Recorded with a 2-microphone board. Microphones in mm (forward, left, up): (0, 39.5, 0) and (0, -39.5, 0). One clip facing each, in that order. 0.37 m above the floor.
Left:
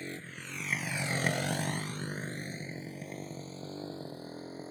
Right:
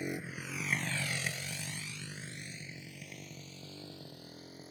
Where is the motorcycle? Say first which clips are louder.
Right 3 dB; 15° right (ahead or behind); by 4.7 s 35° left (ahead or behind).